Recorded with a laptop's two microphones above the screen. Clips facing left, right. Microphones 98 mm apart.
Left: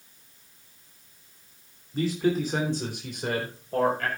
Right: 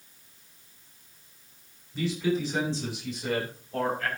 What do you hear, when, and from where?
1.9 s a man speaking: 40° left (ahead or behind), 2.5 m; by 4.1 s 65° left (ahead or behind), 4.5 m